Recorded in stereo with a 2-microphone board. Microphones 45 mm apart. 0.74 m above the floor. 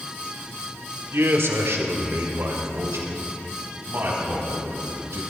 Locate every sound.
1.1 s a man speaking: 70° right (ahead or behind), 1.7 m; by 5.2 s 75° right (ahead or behind), 5.5 m